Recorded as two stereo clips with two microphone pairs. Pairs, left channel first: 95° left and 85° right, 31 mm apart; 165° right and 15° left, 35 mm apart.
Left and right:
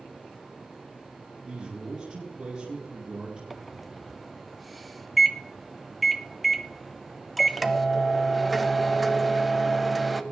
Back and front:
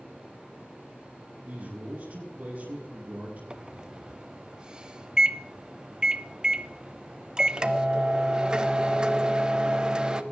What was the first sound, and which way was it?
A man speaking, 25° right.